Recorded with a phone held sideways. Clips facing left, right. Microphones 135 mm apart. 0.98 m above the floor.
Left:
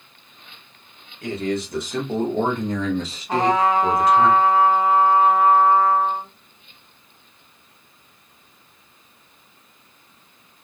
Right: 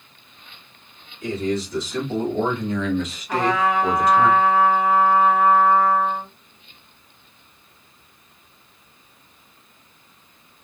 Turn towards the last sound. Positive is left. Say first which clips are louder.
# left 2 dB
turn(degrees=35)  # may be behind; listen again after turning